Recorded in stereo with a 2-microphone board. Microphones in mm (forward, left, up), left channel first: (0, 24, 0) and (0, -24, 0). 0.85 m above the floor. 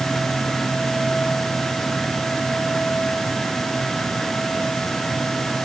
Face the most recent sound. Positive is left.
No sound to turn to.